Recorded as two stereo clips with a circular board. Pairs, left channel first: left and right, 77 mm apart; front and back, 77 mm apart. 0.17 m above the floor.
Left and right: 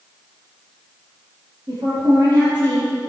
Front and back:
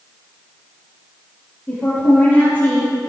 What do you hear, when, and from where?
1.7 s a woman speaking: 75° right, 5.5 m